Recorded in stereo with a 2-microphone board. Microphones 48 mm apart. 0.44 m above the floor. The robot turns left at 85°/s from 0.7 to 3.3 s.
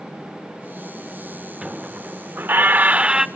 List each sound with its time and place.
1.6 s a squeak: 25° right, 0.6 m; by 3.3 s 165° right, 0.6 m